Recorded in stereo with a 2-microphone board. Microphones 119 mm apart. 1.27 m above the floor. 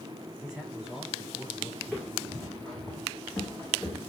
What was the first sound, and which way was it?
A man speaking, 5° right (ahead or behind).